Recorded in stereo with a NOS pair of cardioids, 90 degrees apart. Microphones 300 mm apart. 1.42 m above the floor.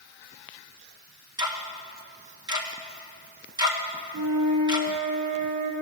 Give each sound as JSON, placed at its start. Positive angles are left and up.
{"t": 1.4, "sound": "ticking", "azimuth_deg": -15, "distance_m": 1.3}
{"t": 4.1, "sound": "a flute", "azimuth_deg": -70, "distance_m": 2.0}